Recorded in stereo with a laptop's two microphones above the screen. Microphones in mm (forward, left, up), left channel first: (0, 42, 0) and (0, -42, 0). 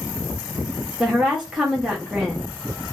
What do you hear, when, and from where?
1.0 s a woman speaking: 10° right (ahead or behind), 0.5 m